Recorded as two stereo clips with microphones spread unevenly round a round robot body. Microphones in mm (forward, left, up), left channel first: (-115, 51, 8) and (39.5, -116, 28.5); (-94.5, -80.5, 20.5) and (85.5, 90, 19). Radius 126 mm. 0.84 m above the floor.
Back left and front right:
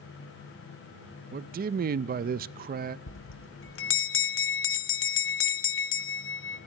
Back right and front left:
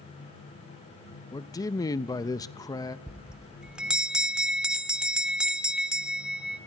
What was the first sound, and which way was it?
A man speaking, 70° right.